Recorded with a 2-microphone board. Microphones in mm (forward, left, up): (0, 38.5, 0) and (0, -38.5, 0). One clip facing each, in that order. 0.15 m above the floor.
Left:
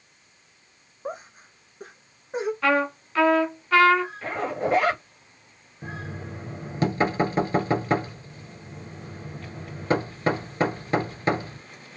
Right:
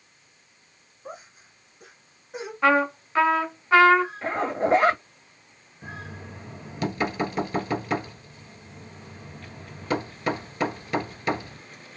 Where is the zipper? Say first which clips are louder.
Right 2 dB; 30° right (ahead or behind), 2 m.